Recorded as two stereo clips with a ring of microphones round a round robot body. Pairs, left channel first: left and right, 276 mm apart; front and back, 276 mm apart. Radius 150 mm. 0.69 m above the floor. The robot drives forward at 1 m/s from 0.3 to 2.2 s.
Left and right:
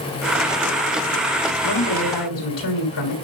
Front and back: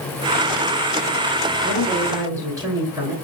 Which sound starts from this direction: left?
A woman speaking, at 1.6 s.